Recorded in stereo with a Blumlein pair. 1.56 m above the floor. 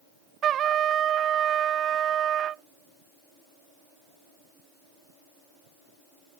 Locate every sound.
0.4 s a trumpet: 25° right